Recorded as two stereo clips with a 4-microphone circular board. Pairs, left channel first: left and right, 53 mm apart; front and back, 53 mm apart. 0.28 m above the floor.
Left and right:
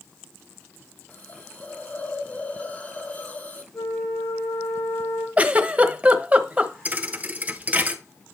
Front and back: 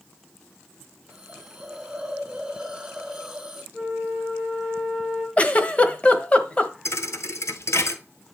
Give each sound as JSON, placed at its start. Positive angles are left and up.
{"t": 1.1, "sound": "a hiss", "azimuth_deg": 110, "distance_m": 1.7}
{"t": 3.7, "sound": "a flute", "azimuth_deg": 75, "distance_m": 6.5}
{"t": 5.4, "sound": "a giggle", "azimuth_deg": -50, "distance_m": 1.0}
{"t": 6.8, "sound": "a thud", "azimuth_deg": -30, "distance_m": 1.0}